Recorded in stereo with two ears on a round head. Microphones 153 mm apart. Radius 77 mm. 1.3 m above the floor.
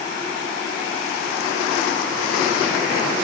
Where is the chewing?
I don't hear chewing.